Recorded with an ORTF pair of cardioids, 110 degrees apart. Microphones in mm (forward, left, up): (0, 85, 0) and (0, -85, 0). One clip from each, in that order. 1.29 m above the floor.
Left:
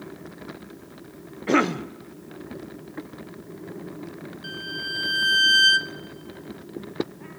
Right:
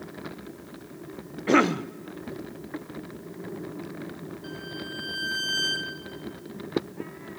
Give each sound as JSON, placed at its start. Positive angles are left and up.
{"t": 1.5, "sound": "a cough", "azimuth_deg": 0, "distance_m": 0.8}
{"t": 4.4, "sound": "a violin", "azimuth_deg": 40, "distance_m": 1.1}